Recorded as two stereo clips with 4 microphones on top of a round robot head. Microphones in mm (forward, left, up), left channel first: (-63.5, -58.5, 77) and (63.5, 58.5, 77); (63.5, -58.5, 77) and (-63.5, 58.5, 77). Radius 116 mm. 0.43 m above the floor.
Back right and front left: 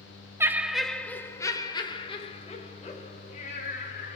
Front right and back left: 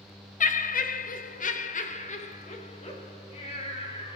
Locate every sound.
0.4 s laughter: 30° right, 1.0 m; by 4.2 s 100° right, 3 m